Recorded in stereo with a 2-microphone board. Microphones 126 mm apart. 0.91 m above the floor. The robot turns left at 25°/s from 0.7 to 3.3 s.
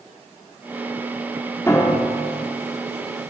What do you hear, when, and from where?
1.7 s a piano: 20° left (ahead or behind), 1.8 m; by 2.4 s 40° left (ahead or behind), 1.8 m